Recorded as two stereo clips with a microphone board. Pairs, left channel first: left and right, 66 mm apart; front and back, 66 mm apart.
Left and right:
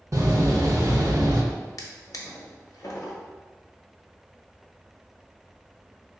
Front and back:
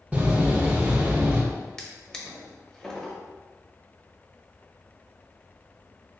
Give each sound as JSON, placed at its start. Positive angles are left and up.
{"t": 0.1, "sound": "a door slam", "azimuth_deg": -115, "distance_m": 0.9}
{"t": 1.8, "sound": "a drawer", "azimuth_deg": 75, "distance_m": 0.8}